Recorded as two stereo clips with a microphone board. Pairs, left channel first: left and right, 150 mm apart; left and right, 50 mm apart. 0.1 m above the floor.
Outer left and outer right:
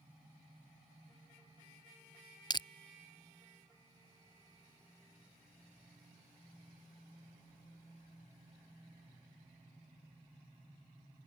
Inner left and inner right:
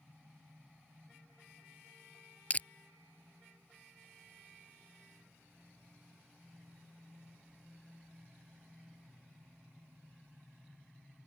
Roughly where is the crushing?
Left.